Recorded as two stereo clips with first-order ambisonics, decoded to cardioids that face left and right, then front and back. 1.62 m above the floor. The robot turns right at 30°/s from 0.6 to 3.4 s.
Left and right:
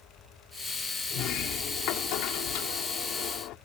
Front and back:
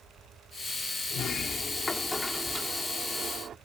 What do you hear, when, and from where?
1.1 s a sliding door: 50° left; by 3.6 s 120° left